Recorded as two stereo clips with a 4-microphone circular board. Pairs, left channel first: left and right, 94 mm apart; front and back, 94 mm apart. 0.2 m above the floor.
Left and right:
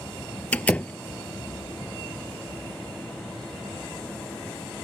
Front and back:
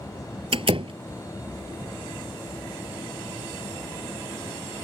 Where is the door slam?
165° left.